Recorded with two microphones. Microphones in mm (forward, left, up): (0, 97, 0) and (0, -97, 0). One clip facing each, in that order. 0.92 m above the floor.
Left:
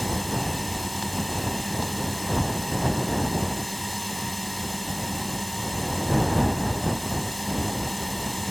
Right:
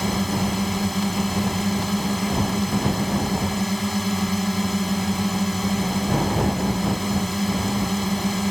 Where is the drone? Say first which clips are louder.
Right 5 dB; 75° right (ahead or behind).